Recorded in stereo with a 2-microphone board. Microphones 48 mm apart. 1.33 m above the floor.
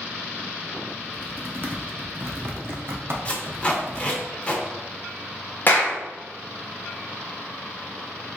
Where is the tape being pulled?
30° left (ahead or behind), 0.9 m.